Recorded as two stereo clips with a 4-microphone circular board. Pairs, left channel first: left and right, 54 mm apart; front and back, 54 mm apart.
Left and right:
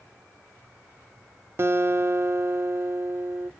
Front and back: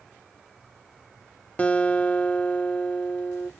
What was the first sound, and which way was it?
A guitar, 65° right.